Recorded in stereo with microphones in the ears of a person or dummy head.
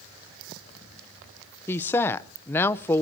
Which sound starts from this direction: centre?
A woman speaking, at 1.7 s.